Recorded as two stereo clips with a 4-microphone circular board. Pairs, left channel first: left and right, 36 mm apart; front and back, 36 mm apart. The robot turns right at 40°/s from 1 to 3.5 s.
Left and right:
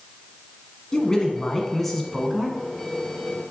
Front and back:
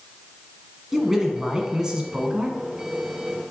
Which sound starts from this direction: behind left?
A man speaking, at 0.9 s.